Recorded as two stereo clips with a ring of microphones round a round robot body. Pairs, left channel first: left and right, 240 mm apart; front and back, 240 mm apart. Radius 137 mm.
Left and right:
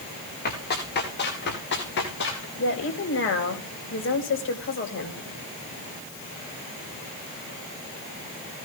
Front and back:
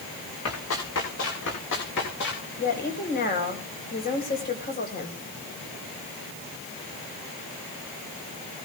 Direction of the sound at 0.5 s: 40° left.